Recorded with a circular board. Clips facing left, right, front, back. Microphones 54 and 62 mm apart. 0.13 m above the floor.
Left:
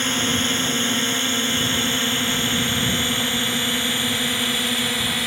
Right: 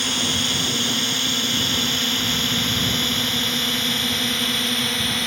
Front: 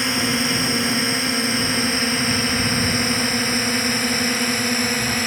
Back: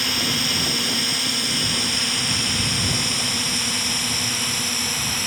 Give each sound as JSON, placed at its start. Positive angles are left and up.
{"t": 0.0, "sound": "a drone", "azimuth_deg": 45}